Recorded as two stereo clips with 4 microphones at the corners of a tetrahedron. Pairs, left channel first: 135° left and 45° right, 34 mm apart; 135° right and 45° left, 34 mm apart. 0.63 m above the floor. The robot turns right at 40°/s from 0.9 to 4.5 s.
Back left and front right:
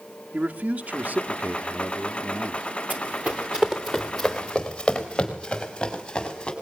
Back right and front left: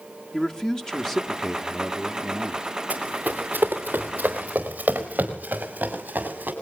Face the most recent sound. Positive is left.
turn(degrees=65)